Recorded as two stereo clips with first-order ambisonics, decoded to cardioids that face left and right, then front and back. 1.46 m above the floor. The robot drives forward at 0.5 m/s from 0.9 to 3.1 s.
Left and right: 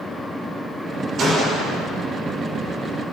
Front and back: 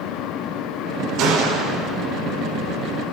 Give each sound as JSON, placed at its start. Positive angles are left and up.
{"t": 1.2, "sound": "a gunshot", "azimuth_deg": -145, "distance_m": 5.0}